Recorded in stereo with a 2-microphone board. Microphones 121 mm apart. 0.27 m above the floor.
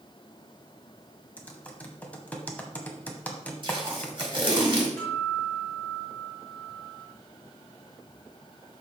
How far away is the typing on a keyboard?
About 1.2 m.